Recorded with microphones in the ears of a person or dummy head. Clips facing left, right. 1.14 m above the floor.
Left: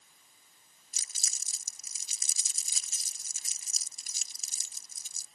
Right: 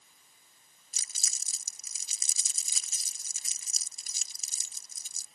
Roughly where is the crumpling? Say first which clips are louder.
Right 1 dB; right.